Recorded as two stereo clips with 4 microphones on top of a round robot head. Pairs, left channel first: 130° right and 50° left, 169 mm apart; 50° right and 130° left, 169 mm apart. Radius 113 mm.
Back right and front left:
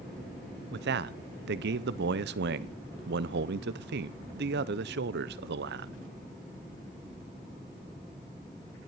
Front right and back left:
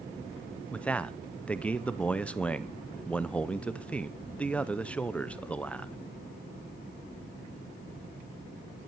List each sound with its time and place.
0.7 s a man speaking: 30° left, 0.6 m